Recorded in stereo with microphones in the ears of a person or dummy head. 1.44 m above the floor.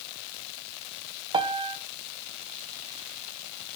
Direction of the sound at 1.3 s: 25° right (ahead or behind).